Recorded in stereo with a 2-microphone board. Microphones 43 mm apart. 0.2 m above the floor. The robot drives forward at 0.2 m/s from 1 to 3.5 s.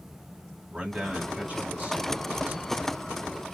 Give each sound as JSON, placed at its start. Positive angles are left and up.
{"t": 0.7, "sound": "a man speaking", "side_deg": -30, "distance_m": 1.2}